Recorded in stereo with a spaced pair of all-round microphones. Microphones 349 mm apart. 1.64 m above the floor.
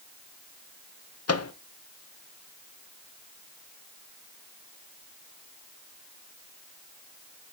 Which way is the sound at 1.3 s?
50° left (ahead or behind).